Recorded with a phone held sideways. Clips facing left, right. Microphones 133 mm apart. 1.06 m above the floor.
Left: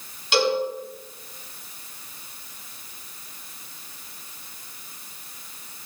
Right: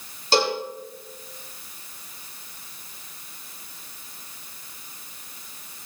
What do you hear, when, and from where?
0.3 s a cowbell: 40° right (ahead or behind), 6.5 m